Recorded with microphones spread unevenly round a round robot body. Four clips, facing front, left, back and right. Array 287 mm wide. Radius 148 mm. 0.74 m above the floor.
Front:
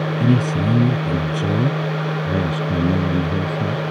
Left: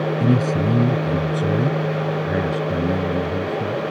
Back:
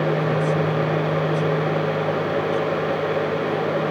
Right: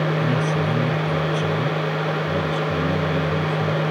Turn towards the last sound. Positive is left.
turn(degrees=5)